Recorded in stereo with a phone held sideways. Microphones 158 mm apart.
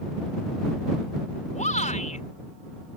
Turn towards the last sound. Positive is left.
turn(degrees=50)  # may be behind; listen again after turning